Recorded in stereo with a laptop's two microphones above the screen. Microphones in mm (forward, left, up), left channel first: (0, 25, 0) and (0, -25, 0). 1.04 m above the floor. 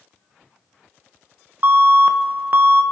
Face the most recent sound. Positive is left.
turn(degrees=-45)  # may be behind; listen again after turning